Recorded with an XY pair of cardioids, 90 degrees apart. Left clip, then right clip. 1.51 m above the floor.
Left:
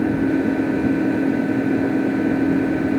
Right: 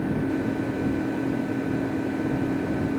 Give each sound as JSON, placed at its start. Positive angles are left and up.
{"t": 0.0, "sound": "an engine running", "azimuth_deg": 55}